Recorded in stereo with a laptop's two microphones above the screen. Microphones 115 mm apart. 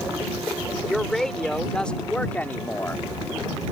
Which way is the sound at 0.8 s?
Centre (ahead or behind).